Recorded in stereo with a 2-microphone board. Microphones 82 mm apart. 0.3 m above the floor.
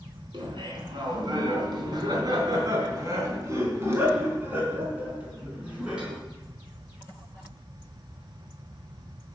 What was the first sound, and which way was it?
Laughter, 65° right (ahead or behind).